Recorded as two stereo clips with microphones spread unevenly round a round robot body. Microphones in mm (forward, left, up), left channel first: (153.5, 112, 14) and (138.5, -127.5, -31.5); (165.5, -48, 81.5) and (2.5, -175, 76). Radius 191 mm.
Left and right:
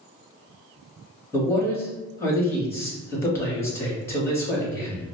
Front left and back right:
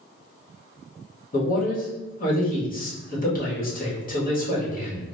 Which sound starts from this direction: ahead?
A man speaking, at 1.3 s.